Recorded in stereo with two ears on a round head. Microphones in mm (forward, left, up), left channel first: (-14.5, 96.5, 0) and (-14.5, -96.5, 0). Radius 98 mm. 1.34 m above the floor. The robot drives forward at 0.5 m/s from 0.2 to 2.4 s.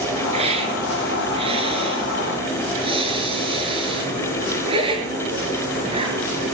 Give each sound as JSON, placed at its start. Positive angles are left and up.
{"t": 0.3, "sound": "a hiss", "side_deg": -30, "distance_m": 6.0}